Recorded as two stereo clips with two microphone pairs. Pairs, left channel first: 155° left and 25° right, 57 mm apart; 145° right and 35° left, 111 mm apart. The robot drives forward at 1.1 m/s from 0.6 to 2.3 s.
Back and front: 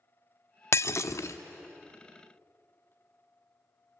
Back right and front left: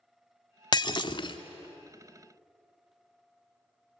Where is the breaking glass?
175° left, 0.5 m; by 1.4 s straight behind, 1.2 m.